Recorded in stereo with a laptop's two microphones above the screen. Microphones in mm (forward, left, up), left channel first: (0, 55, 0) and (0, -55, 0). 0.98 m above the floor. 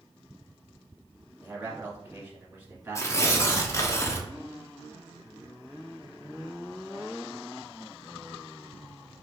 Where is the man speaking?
15° right (ahead or behind), 1.7 m.